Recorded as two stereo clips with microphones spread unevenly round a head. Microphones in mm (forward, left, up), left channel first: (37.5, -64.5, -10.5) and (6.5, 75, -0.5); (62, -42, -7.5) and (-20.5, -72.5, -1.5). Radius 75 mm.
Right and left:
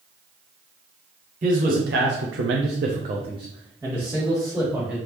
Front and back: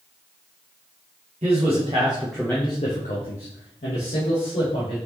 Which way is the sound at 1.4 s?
150° left.